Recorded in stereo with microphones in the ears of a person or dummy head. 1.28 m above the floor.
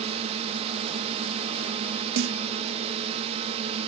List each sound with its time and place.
0.0 s a drone: 35° right (ahead or behind)
2.2 s a snare drum: 65° right (ahead or behind)